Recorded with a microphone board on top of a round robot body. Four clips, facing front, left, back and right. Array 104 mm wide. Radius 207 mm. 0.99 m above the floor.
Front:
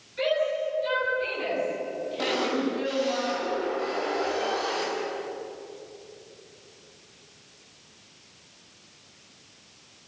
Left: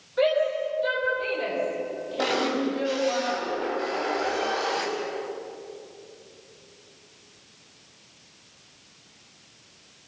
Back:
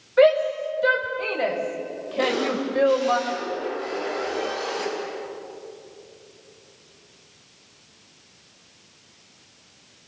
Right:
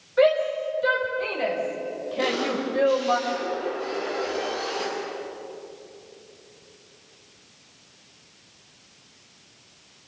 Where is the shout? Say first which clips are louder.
Right 3 dB, back 9 dB; 165° right, 5.5 m; by 3.2 s 150° right, 4 m.